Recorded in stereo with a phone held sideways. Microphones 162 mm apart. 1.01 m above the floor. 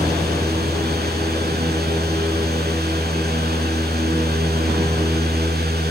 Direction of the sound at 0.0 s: 80° right.